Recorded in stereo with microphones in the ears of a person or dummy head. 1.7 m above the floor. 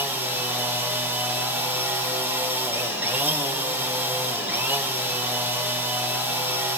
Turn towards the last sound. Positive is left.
turn(degrees=-15)  # may be behind; listen again after turning